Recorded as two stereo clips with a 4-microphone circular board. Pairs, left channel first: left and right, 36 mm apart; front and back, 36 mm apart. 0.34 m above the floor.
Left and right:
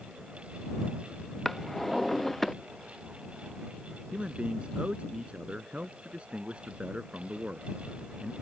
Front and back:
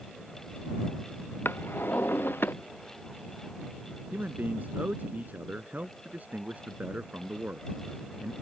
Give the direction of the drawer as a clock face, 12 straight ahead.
12 o'clock.